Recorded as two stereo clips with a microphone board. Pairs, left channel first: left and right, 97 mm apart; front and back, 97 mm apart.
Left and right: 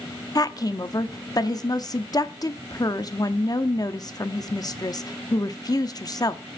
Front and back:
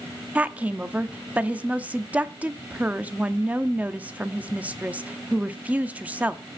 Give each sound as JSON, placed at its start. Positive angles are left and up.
{"t": 0.3, "sound": "a woman speaking", "azimuth_deg": 110, "distance_m": 0.8}